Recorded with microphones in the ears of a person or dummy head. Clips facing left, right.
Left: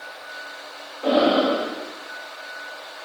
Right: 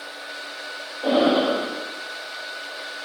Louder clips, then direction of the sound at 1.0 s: Even; centre (ahead or behind).